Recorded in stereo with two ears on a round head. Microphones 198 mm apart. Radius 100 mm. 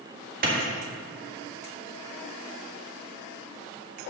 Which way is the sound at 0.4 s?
40° right (ahead or behind).